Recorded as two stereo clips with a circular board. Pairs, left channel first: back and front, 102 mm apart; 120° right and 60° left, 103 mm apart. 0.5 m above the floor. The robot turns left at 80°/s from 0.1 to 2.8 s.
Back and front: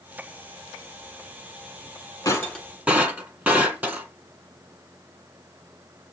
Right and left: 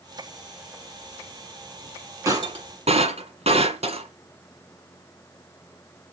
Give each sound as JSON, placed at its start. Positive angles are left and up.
{"t": 2.2, "sound": "breaking glass", "azimuth_deg": 120, "distance_m": 7.5}